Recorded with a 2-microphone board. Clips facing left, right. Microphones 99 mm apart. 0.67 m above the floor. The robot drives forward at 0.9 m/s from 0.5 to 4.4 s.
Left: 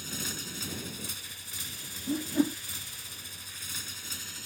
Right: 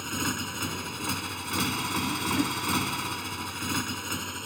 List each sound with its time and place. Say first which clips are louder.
0.0 s a motorcycle: right 9 dB; 65° right (ahead or behind); by 4.5 s 60° right (ahead or behind)
2.1 s a whoosh: left 4 dB; 30° left (ahead or behind); by 2.6 s 20° left (ahead or behind)